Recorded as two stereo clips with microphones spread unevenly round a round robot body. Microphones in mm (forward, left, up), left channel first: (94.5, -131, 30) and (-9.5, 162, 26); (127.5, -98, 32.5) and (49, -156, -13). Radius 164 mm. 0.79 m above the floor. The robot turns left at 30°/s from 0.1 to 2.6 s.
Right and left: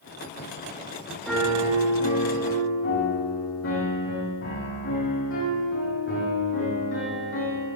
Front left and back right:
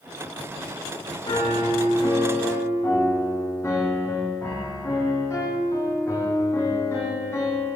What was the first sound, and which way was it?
A piano, 20° left.